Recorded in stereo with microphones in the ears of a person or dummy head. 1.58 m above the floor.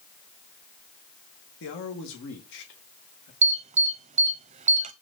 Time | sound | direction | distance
1.6 | a man speaking | 65° left (ahead or behind) | 1.5 m
3.4 | an alarm | 35° right (ahead or behind) | 0.6 m